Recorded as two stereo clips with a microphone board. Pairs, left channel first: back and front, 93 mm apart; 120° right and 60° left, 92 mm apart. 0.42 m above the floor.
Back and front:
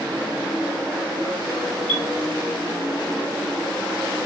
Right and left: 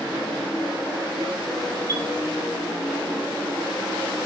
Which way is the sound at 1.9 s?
15° left.